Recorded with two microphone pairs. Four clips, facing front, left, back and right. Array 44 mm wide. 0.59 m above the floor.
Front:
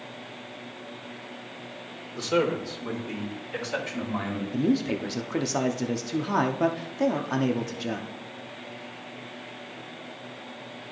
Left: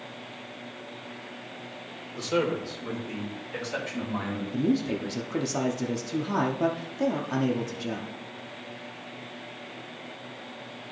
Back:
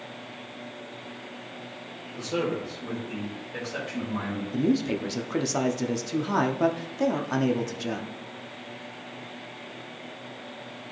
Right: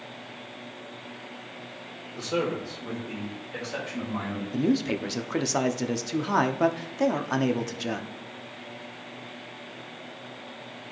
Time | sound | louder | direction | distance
2.2 | a man speaking | left 1 dB, front 4 dB | 25° left | 2 m
4.5 | a man speaking | right 1 dB, even | 75° right | 0.7 m